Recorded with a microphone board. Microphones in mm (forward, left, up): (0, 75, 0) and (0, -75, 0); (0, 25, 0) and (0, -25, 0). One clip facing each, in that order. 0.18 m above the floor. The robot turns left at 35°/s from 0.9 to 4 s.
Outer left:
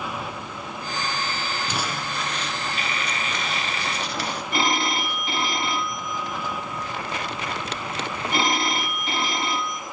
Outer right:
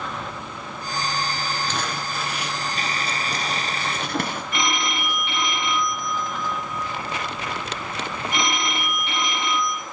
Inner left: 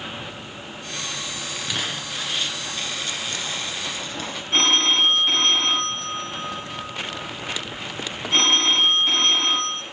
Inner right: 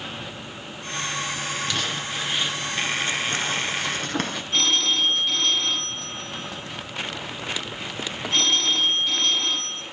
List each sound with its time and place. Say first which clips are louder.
1.7 s crumpling: outer right 1 dB, inner right 1 dB; 10° left, 1.5 m; by 4.5 s 70° right, 1.5 m
4.5 s a phone ringing: outer left 4 dB, inner left 4 dB; 35° left (ahead or behind), 0.8 m